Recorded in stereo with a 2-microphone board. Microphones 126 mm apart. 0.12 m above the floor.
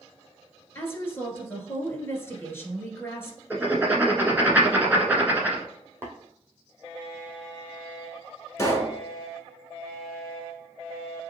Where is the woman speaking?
20° left (ahead or behind), 1.5 m.